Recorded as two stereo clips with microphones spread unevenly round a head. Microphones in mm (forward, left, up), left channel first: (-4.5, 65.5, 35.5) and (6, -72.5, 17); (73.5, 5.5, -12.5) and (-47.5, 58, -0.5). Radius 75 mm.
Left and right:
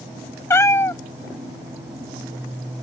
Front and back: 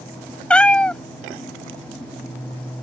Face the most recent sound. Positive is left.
turn(degrees=60)